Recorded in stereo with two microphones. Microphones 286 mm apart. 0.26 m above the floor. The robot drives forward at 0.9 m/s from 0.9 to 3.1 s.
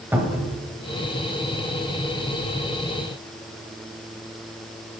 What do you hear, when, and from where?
0.1 s a cupboard door: 5° right (ahead or behind), 1.4 m